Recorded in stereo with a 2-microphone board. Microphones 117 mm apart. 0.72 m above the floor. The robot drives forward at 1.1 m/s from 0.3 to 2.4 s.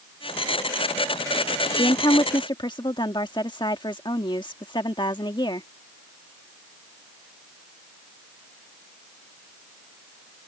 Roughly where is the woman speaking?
Left.